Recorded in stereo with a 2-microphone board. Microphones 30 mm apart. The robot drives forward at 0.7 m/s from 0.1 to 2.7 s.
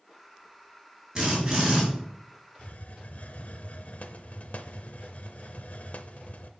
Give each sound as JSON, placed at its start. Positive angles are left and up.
{"t": 1.1, "sound": "a drill", "side_deg": -15, "distance_m": 5.0}
{"t": 2.6, "sound": "a hiss", "side_deg": 50, "distance_m": 0.5}